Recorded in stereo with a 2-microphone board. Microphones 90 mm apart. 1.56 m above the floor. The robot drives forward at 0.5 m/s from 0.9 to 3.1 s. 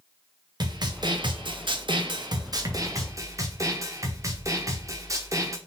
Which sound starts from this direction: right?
A snare drum, at 0.6 s.